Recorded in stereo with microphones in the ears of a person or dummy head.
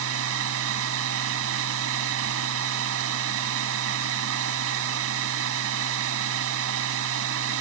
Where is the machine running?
80° right.